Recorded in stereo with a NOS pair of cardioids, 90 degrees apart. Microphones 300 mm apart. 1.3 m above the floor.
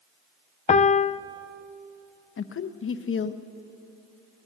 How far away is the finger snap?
I don't hear a finger snap.